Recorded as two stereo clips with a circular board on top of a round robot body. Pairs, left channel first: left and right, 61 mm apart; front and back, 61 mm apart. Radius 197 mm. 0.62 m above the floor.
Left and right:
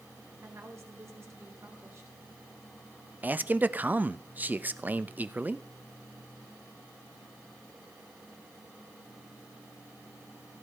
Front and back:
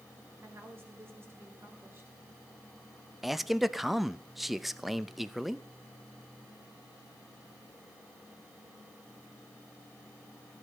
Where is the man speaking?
95° right, 1.1 m.